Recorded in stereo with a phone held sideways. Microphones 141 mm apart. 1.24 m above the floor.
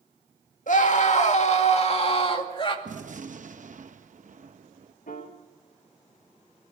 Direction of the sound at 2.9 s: 65° right (ahead or behind).